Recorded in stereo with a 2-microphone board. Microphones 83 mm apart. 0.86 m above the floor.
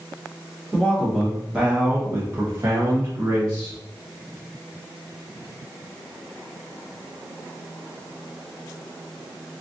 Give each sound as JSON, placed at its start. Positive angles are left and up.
{"t": 0.7, "sound": "a man speaking", "side_deg": 5, "distance_m": 0.9}